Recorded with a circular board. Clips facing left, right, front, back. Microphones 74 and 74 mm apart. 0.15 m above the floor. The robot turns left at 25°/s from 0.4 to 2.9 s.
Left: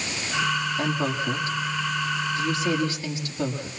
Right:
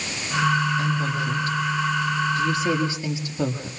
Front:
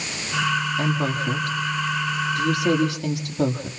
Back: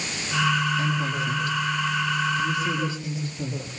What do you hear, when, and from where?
0.8 s a woman speaking: 40° left, 4.5 m; by 3.7 s 15° right, 4.5 m